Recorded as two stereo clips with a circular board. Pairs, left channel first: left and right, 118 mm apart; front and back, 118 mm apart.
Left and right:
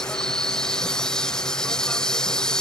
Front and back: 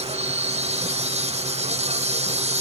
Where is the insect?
175° left.